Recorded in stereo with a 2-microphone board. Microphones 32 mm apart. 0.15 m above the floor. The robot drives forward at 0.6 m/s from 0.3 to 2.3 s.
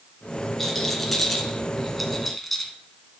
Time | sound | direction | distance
0.6 | a rattle | 5° left (ahead or behind) | 2.5 m